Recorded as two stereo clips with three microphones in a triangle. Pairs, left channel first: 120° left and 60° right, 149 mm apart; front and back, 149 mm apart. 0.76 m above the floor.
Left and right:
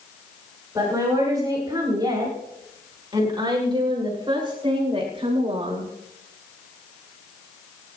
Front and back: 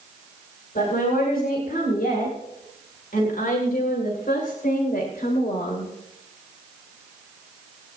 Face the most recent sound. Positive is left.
turn(degrees=-15)